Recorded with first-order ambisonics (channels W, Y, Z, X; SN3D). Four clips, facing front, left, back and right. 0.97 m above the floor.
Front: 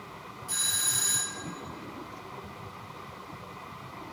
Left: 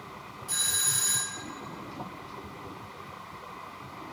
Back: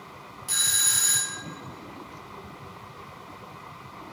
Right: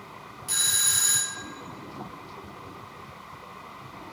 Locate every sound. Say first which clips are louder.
0.5 s a doorbell: right 4 dB, back 5 dB; 140° right, 1.3 m